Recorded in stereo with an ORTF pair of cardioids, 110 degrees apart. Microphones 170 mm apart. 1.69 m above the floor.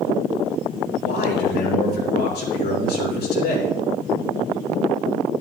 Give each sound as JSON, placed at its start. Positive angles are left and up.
{"t": 1.0, "sound": "a man speaking", "azimuth_deg": 65, "distance_m": 4.5}